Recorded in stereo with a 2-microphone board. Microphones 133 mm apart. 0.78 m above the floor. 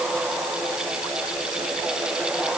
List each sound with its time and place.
Only background noise.